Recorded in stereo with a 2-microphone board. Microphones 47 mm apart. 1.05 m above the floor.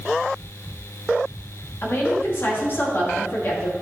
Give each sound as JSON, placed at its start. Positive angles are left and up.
{"t": 1.8, "sound": "a woman speaking", "side_deg": 50, "distance_m": 2.0}